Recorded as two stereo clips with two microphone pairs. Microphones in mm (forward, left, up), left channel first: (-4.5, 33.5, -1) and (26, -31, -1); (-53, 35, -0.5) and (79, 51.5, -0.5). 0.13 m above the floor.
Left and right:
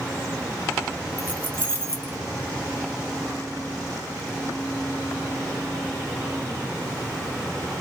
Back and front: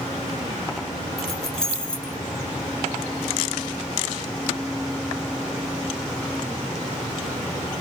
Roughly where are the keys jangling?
Right.